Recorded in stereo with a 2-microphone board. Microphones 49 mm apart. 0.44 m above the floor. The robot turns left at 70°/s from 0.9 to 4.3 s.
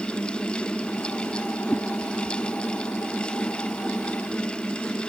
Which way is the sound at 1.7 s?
25° left (ahead or behind).